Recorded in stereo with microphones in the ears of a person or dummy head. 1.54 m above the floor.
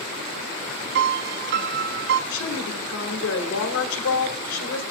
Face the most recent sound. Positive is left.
turn(degrees=85)